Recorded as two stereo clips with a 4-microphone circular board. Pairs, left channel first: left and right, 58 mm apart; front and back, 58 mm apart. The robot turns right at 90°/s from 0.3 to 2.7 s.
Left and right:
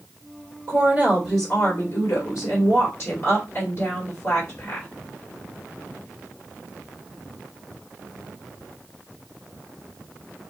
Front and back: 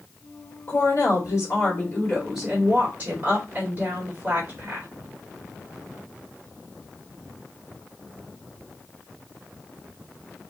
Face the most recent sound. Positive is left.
turn(degrees=140)